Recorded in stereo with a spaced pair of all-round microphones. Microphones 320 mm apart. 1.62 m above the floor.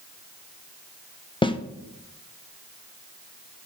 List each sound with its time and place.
1.4 s a snare drum: 15° left (ahead or behind), 0.7 m